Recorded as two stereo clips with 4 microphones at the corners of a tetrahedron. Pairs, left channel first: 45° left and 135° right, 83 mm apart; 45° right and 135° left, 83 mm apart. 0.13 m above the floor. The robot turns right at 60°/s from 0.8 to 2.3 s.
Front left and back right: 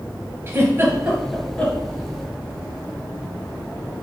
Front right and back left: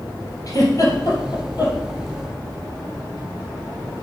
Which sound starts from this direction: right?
A giggle, at 0.5 s.